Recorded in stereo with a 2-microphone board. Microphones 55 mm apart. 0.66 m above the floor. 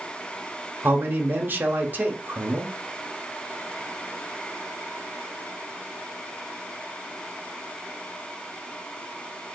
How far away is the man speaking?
About 0.9 m.